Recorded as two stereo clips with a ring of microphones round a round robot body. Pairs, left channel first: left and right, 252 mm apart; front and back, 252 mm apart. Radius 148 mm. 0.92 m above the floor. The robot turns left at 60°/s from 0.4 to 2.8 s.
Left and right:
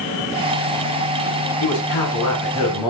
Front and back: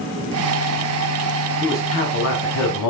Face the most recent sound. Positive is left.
turn(degrees=15)